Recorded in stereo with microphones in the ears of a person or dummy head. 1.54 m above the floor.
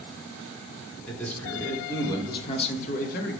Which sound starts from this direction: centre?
A man speaking, at 1.1 s.